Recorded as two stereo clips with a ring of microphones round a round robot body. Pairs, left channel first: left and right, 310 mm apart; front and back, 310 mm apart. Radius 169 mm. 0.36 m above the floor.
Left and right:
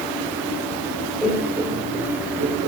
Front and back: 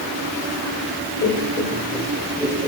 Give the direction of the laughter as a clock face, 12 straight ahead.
12 o'clock.